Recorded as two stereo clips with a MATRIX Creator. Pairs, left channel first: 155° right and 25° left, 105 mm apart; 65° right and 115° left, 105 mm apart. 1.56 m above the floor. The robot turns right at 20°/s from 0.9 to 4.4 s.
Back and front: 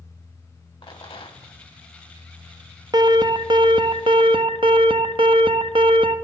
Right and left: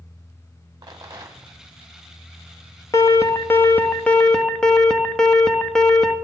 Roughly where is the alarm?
Ahead.